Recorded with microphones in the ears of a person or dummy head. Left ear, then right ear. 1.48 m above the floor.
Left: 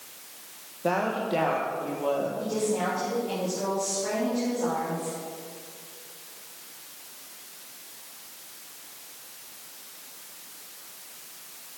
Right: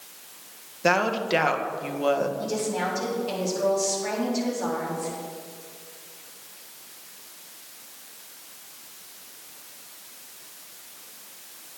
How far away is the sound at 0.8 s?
About 1.7 m.